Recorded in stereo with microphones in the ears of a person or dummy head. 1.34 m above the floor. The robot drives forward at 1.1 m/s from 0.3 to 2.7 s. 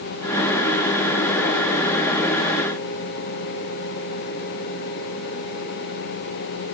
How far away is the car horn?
No car horn in this recording.